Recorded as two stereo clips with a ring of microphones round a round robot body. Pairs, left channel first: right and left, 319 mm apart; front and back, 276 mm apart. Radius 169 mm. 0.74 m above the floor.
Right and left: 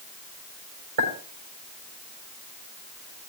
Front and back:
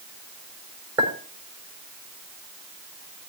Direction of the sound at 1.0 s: 100° left.